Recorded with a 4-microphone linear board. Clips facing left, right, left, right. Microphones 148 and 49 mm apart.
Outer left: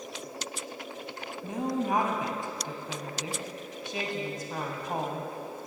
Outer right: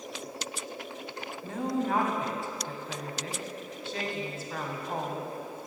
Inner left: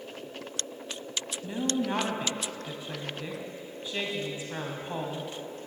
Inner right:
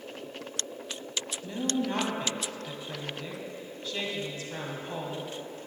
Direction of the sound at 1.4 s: 15° left (ahead or behind).